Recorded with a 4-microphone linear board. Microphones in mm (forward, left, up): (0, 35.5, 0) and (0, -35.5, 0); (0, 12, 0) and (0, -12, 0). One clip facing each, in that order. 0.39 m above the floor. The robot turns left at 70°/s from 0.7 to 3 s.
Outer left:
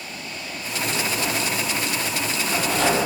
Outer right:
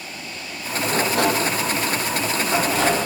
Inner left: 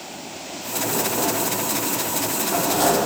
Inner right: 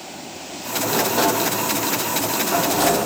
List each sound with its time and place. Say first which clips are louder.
0.9 s a sliding door: outer right 7 dB, inner right 5 dB; 40° right, 2.5 m; by 3.1 s 170° left, 2.5 m